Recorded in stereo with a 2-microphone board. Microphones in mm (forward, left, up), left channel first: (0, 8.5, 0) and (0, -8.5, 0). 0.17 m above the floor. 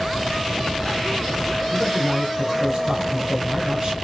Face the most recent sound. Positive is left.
turn(degrees=-45)  # may be behind; listen again after turning